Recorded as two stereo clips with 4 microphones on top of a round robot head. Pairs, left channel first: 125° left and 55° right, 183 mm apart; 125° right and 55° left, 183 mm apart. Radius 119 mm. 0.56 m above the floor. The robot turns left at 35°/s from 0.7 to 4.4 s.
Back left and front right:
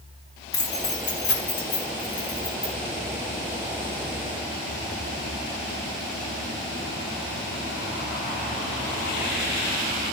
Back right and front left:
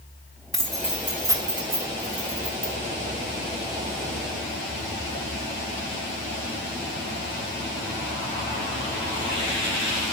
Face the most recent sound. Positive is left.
turn(degrees=15)